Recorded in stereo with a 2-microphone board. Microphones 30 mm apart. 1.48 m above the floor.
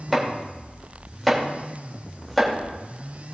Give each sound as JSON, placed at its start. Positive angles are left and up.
{"t": 0.1, "sound": "chopping", "side_deg": 5, "distance_m": 2.0}